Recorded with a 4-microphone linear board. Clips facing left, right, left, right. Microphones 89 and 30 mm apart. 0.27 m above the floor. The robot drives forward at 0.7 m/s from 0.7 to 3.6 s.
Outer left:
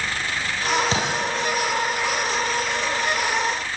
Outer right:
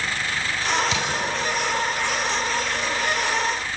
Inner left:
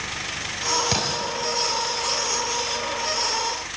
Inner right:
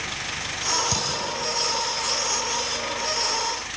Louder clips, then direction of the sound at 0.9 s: Outer left 2 dB, inner left 2 dB; 35° left (ahead or behind).